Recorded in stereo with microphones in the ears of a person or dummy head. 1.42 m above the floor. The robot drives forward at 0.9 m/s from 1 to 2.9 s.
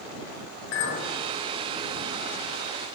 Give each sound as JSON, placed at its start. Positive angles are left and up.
{"t": 0.7, "sound": "a clink", "side_deg": 60, "distance_m": 1.2}